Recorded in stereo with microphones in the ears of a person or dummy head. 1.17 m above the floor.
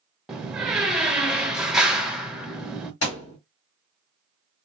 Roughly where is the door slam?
Centre.